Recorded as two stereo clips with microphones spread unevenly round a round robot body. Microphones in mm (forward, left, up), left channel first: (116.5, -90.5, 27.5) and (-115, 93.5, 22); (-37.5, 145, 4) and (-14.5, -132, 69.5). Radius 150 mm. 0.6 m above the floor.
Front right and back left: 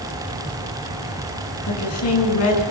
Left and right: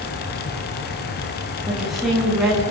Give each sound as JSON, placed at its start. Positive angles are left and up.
{"t": 1.7, "sound": "a woman speaking", "azimuth_deg": 5, "distance_m": 7.0}